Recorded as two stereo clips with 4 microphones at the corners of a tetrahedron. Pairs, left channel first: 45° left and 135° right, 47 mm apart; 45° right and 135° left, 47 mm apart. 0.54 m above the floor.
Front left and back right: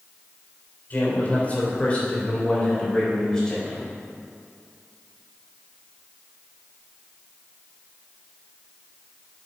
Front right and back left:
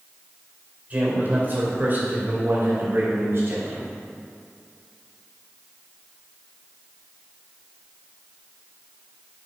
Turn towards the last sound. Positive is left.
turn(degrees=120)